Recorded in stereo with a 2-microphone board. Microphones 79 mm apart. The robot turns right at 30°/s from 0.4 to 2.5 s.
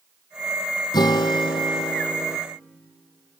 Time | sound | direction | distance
0.9 | a guitar | 65° left | 1.3 m